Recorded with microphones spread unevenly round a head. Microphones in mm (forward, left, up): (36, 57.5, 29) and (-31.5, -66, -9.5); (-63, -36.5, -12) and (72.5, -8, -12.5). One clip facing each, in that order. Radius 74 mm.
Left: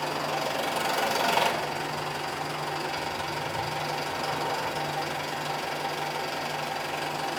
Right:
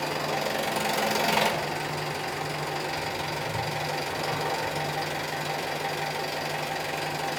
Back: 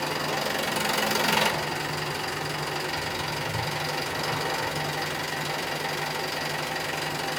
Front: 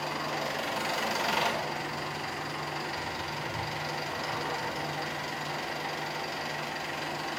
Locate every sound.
0.0 s an engine running: 160° left, 1.7 m